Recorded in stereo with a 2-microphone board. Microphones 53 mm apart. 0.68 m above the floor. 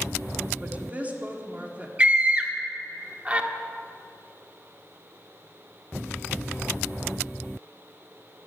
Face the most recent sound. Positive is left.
turn(degrees=-25)  # may be behind; listen again after turning